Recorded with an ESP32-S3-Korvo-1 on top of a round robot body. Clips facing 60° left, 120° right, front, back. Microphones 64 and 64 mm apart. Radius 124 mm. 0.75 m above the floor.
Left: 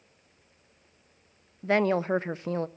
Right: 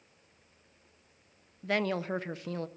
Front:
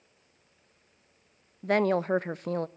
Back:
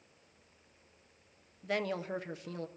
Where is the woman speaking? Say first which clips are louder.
Left 7 dB, front 10 dB; 5° left, 0.6 m.